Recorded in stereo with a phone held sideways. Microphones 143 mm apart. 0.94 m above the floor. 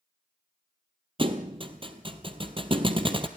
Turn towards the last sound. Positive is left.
turn(degrees=-40)  # may be behind; listen again after turning